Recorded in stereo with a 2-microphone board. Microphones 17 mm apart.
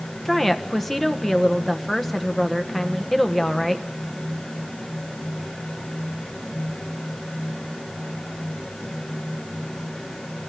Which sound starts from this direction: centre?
A woman speaking, at 0.2 s.